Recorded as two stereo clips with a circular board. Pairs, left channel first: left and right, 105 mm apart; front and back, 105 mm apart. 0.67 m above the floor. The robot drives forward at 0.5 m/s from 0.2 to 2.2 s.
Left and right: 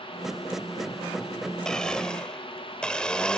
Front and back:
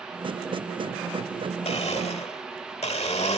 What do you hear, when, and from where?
1.6 s a blender: 5° left; by 3.4 s 10° left